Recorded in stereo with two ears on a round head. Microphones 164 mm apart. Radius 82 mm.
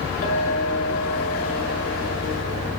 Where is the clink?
45° left (ahead or behind), 6.5 m.